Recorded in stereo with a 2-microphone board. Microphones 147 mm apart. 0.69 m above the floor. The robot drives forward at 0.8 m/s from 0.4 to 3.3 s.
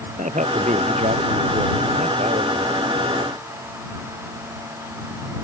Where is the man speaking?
55° right (ahead or behind); by 2.7 s 50° right (ahead or behind).